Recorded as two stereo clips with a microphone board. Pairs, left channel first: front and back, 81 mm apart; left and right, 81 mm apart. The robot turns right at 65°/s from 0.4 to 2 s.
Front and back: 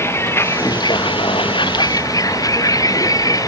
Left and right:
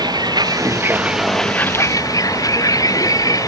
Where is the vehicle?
60° right; by 3.5 s 45° left.